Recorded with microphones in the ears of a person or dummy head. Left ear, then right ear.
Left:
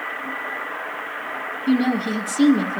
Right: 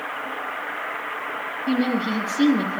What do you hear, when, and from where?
1.7 s a woman speaking: 30° left (ahead or behind), 2.5 m